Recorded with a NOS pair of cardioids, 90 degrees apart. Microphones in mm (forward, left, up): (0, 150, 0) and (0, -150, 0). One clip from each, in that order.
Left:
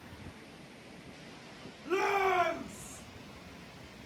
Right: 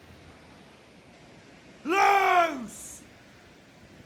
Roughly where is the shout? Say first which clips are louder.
Right 8 dB; ahead right.